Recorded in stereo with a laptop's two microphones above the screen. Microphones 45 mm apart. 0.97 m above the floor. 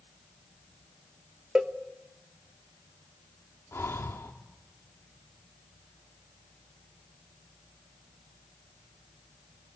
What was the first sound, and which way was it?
A cowbell, 20° right (ahead or behind).